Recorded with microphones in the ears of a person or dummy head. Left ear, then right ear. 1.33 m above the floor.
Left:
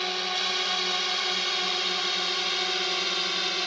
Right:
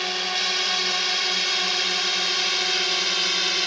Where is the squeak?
I don't hear a squeak.